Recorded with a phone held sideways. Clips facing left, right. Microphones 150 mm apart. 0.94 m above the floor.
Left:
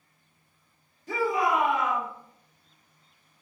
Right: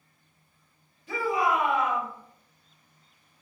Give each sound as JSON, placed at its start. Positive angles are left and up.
{"t": 1.1, "sound": "a shout", "side_deg": 40, "distance_m": 1.8}